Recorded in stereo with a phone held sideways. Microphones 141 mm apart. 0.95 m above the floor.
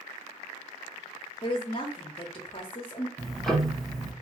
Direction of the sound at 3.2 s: Centre (ahead or behind).